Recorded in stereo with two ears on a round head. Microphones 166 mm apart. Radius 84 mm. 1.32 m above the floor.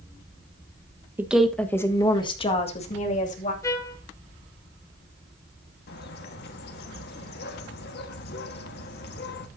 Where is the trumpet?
15° left (ahead or behind), 1.5 m.